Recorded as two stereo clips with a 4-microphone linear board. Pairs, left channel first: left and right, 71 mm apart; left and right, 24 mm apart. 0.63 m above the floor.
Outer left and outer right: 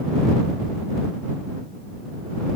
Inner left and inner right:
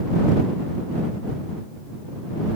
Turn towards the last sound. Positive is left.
No sound to turn to.